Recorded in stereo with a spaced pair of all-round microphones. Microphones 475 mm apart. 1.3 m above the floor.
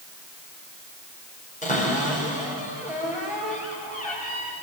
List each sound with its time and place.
1.6 s a cupboard door: 15° left (ahead or behind), 5.5 m